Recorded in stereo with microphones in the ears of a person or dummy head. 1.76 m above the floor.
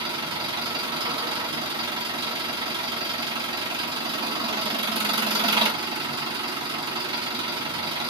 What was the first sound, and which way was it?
An engine running, 15° right (ahead or behind).